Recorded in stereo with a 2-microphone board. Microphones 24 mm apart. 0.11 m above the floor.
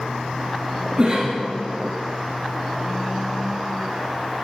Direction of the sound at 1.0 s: 25° right (ahead or behind).